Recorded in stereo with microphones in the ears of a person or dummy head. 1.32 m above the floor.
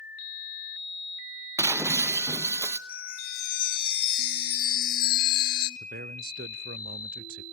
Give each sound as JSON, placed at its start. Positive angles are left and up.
{"t": 1.6, "sound": "breaking glass", "side_deg": -10, "distance_m": 0.7}
{"t": 2.9, "sound": "a chime", "side_deg": 50, "distance_m": 0.7}
{"t": 5.8, "sound": "a man speaking", "side_deg": -45, "distance_m": 0.5}